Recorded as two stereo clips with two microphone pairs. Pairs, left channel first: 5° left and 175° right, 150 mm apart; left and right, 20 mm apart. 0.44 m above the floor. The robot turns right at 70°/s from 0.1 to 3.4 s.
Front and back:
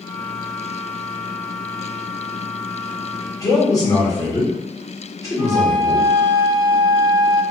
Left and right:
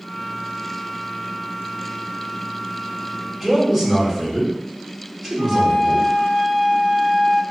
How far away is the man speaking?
About 1.0 m.